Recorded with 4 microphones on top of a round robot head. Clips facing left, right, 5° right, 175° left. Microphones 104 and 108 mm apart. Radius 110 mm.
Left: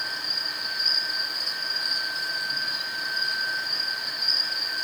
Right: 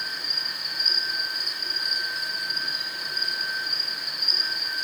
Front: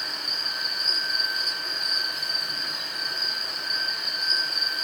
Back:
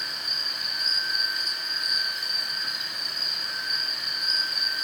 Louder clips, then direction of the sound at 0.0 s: Left 1 dB, front 2 dB; 45° right.